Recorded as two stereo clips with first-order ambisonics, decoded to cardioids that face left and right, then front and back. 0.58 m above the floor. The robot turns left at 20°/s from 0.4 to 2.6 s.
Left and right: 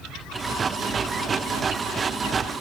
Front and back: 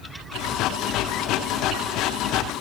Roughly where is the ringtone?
No ringtone in this recording.